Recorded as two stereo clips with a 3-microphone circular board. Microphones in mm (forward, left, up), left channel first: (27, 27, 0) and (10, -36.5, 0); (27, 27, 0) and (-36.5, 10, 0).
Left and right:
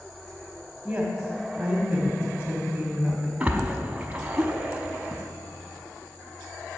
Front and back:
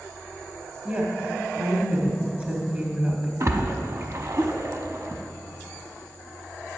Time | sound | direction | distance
0.8 | a woman speaking | 150° right | 1.1 m
3.4 | a splash | 165° right | 0.8 m